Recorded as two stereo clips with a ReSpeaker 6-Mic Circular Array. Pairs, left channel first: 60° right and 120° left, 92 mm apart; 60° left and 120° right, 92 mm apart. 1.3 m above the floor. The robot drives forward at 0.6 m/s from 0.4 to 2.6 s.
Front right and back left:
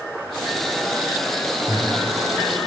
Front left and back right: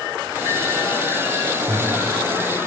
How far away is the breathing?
About 0.7 m.